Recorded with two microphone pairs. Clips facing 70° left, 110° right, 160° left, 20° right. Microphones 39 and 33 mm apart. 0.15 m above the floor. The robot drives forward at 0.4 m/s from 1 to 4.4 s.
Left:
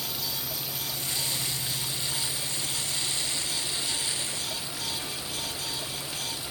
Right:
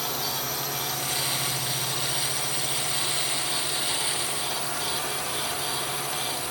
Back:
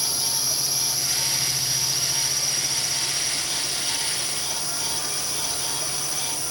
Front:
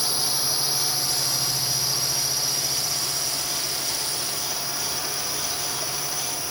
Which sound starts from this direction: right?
A drone, at 0.0 s.